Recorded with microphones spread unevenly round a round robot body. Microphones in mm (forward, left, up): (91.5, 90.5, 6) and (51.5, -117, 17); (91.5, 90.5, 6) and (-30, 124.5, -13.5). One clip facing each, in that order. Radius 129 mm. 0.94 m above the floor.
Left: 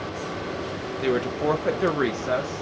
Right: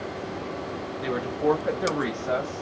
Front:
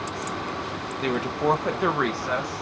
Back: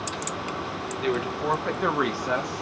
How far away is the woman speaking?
About 0.8 m.